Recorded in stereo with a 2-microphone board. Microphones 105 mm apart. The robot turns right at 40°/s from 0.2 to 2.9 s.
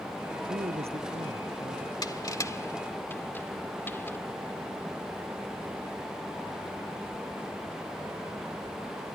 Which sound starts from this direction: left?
Crushing, at 2.0 s.